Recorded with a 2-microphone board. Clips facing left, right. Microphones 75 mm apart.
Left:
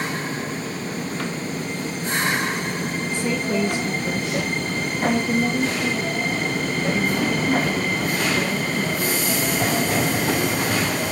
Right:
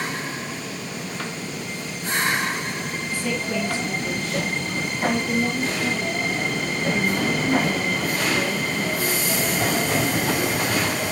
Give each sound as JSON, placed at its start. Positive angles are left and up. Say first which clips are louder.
{"t": 3.1, "sound": "a woman speaking", "louder": "left 2 dB", "side_deg": 20, "distance_m": 1.3}